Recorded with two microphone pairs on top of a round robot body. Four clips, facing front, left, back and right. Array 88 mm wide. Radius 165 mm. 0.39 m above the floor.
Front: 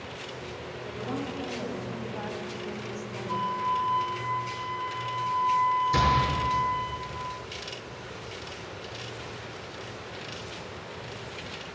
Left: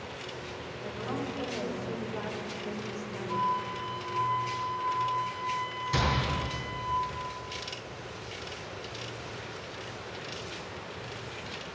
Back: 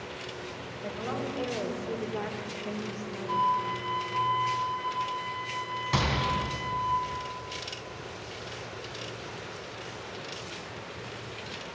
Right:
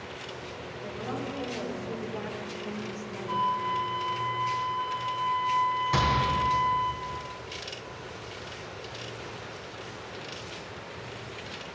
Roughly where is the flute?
Right.